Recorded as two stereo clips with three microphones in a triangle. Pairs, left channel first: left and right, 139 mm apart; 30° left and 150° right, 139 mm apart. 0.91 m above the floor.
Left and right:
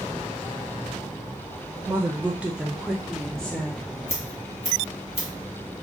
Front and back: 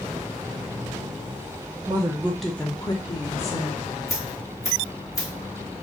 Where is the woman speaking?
145° right, 0.6 m; by 3.9 s 10° left, 1.0 m.